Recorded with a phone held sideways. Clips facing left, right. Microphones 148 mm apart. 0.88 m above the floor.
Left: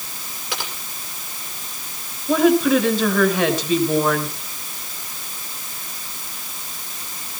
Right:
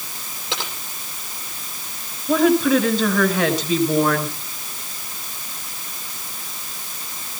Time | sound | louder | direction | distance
0.5 | typing on a keyboard | right 1 dB | 25° right (ahead or behind) | 7.5 m
2.3 | a woman speaking | left 1 dB | 5° right (ahead or behind) | 5 m